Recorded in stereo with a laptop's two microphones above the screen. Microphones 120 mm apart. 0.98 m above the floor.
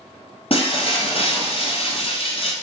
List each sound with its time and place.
0.5 s breaking glass: 55° left (ahead or behind), 1.5 m